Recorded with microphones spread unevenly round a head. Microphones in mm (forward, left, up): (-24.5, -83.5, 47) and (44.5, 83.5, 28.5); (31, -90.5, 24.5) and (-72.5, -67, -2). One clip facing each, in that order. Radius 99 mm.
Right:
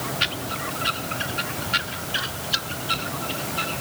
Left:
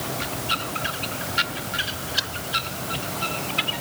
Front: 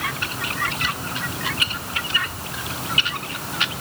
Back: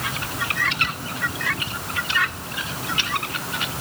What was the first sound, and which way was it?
Only background noise.